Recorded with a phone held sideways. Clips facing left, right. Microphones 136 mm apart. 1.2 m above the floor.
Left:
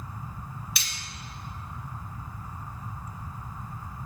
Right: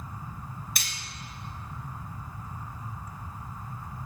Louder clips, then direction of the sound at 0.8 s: Right 1 dB; 45° right (ahead or behind).